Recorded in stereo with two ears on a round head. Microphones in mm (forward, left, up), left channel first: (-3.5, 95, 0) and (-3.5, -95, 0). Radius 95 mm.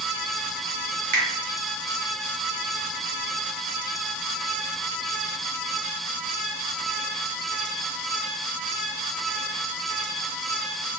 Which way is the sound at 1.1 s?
40° right (ahead or behind).